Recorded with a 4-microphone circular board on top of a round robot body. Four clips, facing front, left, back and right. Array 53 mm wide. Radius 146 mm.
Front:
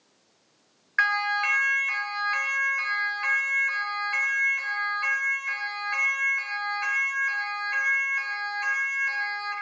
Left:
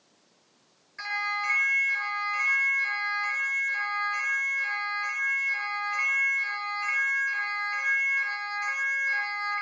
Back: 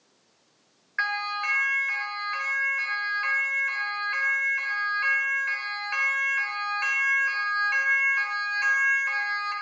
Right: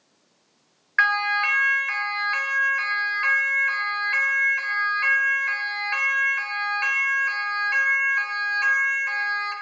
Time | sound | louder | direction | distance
1.0 | a siren | right 10 dB, front 4 dB | 70° right | 8 m